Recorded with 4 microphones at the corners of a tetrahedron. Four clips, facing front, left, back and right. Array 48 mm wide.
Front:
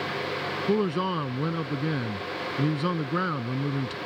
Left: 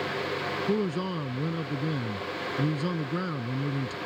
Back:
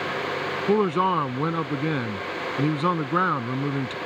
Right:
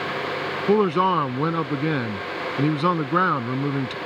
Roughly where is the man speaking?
Behind right.